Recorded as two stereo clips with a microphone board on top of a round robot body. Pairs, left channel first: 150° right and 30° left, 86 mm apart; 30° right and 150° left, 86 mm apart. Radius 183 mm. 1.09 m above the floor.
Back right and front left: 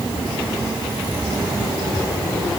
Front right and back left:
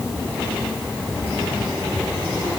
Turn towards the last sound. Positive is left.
No sound to turn to.